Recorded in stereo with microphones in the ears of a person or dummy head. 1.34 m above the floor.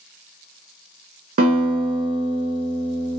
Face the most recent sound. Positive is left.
turn(degrees=-45)  # may be behind; listen again after turning